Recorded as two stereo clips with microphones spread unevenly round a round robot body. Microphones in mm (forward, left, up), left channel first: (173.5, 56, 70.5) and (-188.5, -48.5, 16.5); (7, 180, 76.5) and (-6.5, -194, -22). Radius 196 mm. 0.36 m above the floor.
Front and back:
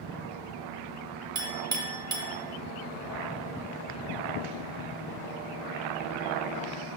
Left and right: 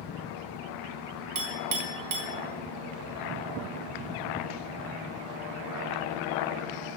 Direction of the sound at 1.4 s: 90° right.